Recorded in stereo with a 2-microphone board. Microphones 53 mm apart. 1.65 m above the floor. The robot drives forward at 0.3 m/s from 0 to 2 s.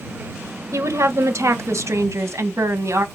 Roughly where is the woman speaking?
Right.